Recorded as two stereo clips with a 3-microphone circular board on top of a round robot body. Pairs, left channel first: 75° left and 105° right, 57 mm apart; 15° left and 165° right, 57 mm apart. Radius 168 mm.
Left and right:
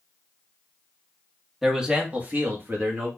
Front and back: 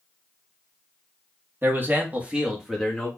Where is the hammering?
No hammering in this recording.